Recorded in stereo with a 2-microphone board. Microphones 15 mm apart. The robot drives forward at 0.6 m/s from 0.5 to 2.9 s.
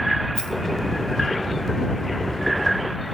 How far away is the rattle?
About 3 m.